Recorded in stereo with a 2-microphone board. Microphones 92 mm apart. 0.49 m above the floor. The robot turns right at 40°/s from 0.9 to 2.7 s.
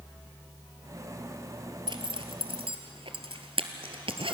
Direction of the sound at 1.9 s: 60° right (ahead or behind).